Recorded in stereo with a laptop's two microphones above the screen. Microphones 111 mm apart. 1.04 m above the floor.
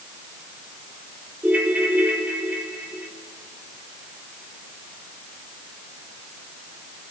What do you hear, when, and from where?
1.4 s a ringtone: 15° right (ahead or behind), 1.6 m